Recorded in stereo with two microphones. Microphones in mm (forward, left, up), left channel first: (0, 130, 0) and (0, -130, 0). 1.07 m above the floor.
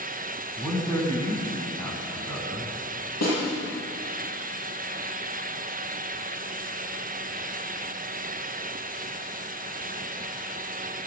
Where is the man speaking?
15° left (ahead or behind), 7.5 m.